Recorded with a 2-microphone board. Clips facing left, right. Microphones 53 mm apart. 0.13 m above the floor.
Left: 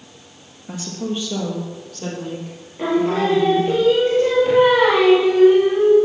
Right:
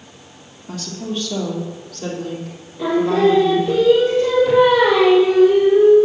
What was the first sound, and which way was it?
A woman speaking, 20° left (ahead or behind).